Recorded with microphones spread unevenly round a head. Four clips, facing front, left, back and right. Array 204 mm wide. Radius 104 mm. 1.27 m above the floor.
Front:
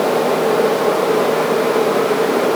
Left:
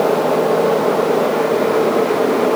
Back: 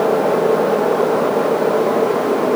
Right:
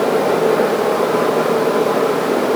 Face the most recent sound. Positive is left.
No sound to turn to.